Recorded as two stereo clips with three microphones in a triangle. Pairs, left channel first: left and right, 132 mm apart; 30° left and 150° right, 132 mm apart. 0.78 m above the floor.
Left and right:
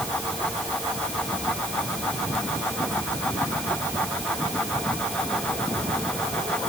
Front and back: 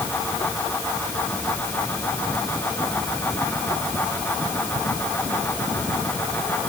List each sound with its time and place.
Only background noise.